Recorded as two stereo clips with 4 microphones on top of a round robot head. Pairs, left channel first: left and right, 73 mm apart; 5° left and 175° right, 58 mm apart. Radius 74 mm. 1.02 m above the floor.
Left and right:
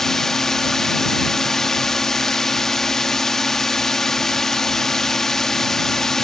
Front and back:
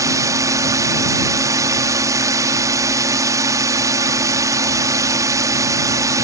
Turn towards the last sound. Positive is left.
turn(degrees=175)